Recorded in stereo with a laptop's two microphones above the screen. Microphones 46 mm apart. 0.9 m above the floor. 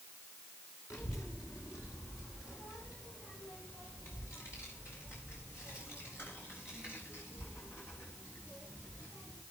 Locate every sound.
0.9 s a child speaking: 80° left, 1.6 m; by 9.4 s 55° left (ahead or behind), 6.5 m